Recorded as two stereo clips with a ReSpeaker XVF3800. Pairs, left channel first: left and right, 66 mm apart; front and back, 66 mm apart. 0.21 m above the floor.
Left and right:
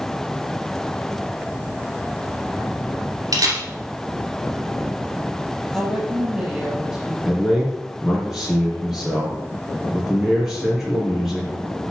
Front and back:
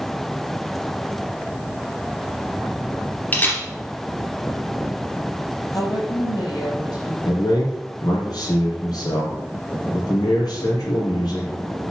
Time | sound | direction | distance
3.3 | a camera shutter | 65° right | 2.5 m
5.7 | a woman speaking | 10° right | 5.5 m
7.2 | a man speaking | 5° right | 4 m